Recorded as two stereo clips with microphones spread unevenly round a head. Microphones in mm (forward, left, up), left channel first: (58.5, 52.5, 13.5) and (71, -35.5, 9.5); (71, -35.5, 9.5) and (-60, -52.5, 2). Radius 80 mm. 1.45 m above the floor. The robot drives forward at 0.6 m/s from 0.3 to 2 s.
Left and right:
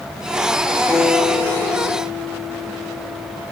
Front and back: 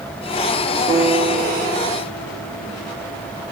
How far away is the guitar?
About 1.2 m.